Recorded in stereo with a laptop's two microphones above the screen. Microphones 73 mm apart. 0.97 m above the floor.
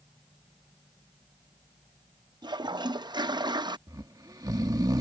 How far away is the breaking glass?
No breaking glass in this recording.